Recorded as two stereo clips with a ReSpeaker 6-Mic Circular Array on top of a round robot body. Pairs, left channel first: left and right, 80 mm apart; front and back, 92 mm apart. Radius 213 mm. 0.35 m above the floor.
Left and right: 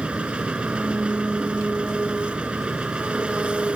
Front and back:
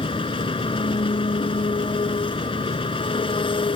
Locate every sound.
0.0 s an engine running: 15° right